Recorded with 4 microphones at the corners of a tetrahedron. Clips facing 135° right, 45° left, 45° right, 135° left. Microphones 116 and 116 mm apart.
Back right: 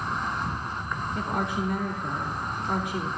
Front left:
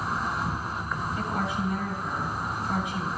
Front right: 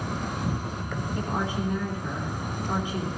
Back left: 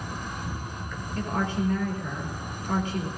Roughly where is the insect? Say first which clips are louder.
Front left 1 dB, front right 5 dB; ahead right.